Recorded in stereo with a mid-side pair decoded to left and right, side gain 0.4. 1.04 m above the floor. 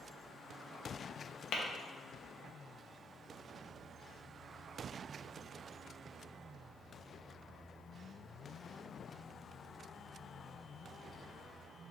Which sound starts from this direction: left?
Tapping, at 1.5 s.